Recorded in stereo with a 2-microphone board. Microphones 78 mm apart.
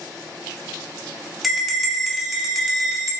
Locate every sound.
1.4 s a bell: centre (ahead or behind), 0.6 m